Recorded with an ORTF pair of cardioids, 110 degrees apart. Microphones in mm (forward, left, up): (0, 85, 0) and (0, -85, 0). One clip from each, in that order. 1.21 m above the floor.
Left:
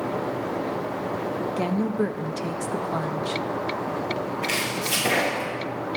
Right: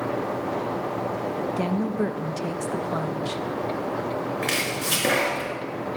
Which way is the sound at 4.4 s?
65° right.